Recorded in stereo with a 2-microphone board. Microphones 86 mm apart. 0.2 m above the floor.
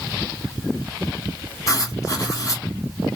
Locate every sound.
1.7 s writing: 40° left (ahead or behind), 2 m